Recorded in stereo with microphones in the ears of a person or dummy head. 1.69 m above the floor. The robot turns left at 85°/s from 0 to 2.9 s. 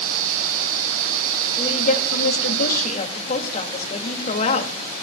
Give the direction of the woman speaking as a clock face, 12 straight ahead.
7 o'clock.